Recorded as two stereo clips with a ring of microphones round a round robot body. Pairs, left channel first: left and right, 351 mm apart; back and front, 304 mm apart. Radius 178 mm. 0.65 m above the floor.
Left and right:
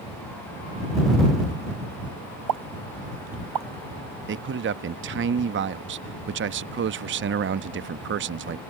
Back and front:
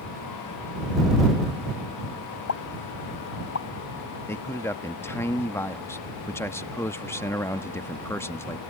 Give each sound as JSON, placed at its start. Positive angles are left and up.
{"t": 2.5, "sound": "a pop", "azimuth_deg": -125}
{"t": 4.3, "sound": "a man speaking", "azimuth_deg": -105}